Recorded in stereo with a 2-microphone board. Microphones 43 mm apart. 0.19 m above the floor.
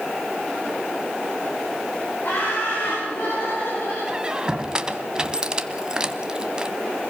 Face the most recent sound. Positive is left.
turn(degrees=-20)  # may be behind; listen again after turning